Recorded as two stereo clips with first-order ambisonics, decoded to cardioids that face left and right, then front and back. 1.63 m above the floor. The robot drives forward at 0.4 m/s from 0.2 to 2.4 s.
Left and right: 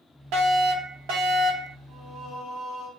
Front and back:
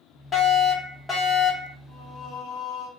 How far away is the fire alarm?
About 1.2 m.